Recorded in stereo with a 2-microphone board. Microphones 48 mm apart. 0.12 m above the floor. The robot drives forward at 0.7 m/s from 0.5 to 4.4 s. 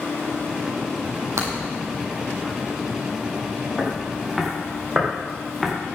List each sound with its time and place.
1.4 s breaking glass: 75° right (ahead or behind), 3 m
3.8 s footsteps: 10° right (ahead or behind), 5.5 m; by 5.7 s 5° right (ahead or behind), 4 m